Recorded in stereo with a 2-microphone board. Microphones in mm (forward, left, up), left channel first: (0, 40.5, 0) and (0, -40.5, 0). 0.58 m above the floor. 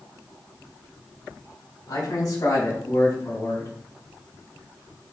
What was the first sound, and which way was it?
A man speaking, 50° left (ahead or behind).